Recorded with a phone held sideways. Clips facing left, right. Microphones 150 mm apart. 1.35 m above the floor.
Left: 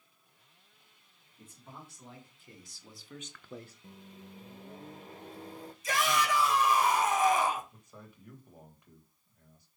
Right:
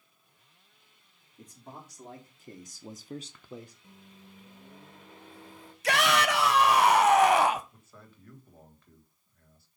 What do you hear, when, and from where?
1.4 s a man speaking: 40° right (ahead or behind), 3 m; by 3.7 s 10° left (ahead or behind), 0.8 m
3.8 s a microwave: 40° left (ahead or behind), 0.9 m
5.8 s a shout: 70° right (ahead or behind), 1.0 m
7.7 s a man speaking: 15° left (ahead or behind), 1.9 m